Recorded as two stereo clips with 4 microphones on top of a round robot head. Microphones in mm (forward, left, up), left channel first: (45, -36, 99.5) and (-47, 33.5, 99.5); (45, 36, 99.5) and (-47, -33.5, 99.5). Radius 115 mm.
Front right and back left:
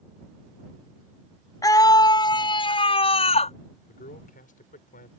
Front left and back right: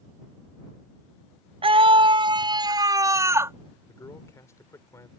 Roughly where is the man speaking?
Ahead right.